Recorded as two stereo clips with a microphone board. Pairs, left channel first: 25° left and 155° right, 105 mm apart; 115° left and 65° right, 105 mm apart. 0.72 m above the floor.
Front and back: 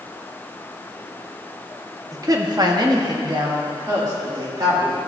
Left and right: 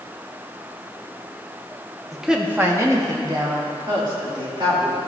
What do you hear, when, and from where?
2.1 s a woman speaking: 165° right, 0.7 m; by 5.0 s 100° right, 2.5 m